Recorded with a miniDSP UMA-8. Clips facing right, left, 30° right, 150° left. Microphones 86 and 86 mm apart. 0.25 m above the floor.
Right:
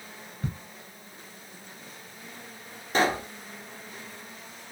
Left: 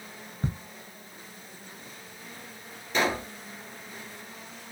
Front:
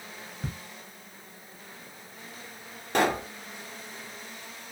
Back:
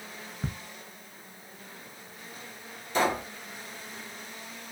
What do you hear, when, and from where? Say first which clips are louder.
0.4 s ticking: left 2 dB, back 2 dB; 95° left, 0.5 m
2.9 s a pop: right 2 dB, front 2 dB; 40° right, 0.8 m